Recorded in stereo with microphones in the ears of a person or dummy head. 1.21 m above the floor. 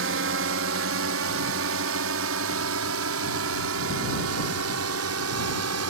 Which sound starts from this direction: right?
A drone, at 0.0 s.